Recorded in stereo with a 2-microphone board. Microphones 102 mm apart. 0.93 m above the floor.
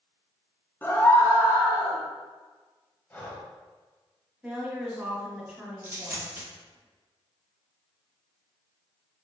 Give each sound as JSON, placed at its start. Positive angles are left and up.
{"t": 0.8, "sound": "a scream", "side_deg": 20, "distance_m": 0.6}
{"t": 3.1, "sound": "breathing", "side_deg": 20, "distance_m": 0.7}
{"t": 4.4, "sound": "a woman speaking", "side_deg": -5, "distance_m": 1.3}
{"t": 5.8, "sound": "a dropped coin", "side_deg": -25, "distance_m": 1.1}